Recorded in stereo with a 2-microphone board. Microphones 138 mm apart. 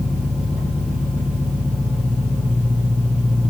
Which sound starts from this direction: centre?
An engine running, at 0.0 s.